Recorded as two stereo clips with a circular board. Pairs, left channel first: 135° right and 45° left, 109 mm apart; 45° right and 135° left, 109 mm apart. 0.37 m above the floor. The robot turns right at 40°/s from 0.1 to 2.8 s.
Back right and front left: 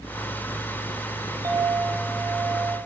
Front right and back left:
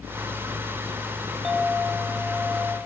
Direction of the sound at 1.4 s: 45° left.